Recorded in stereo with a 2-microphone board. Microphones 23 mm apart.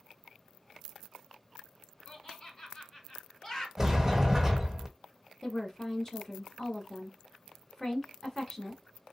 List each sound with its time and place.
2.1 s laughter: 30° left (ahead or behind), 1.4 m
3.8 s a sliding door: 15° right (ahead or behind), 1.1 m
5.4 s a woman speaking: 25° left (ahead or behind), 1.2 m